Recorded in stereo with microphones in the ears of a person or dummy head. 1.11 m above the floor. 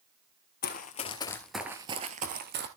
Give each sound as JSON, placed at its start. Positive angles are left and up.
{"t": 0.6, "sound": "running footsteps", "side_deg": 45, "distance_m": 1.9}